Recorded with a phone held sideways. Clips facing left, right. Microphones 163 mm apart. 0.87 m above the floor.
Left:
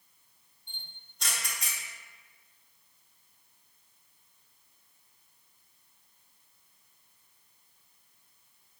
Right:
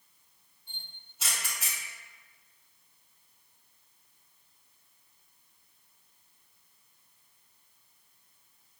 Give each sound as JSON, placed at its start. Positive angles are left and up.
{"t": 0.7, "sound": "a camera shutter", "side_deg": -5, "distance_m": 0.6}